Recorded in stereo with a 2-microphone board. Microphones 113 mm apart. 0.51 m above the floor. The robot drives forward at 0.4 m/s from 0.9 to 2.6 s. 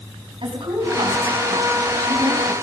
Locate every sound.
0.4 s a woman speaking: 55° right (ahead or behind), 4.5 m; by 2.5 s 50° right (ahead or behind), 5 m